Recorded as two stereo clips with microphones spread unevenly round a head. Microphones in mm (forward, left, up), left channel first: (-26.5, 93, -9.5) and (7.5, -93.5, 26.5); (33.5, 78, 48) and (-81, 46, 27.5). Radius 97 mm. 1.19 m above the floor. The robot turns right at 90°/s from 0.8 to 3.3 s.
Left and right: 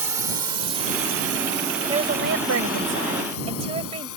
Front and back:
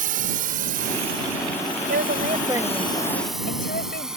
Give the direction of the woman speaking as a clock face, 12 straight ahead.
5 o'clock.